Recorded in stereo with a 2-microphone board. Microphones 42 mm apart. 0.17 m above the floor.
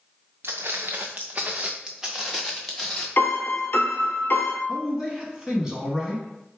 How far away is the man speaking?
About 1.2 m.